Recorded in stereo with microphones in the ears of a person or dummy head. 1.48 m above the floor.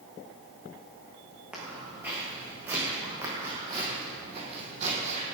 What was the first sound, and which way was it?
Footsteps, 5° right (ahead or behind).